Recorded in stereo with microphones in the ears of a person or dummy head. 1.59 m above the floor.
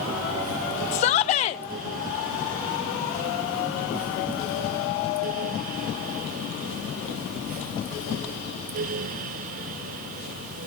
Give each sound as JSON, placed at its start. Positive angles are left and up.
{"t": 0.9, "sound": "a shout", "side_deg": 40, "distance_m": 0.5}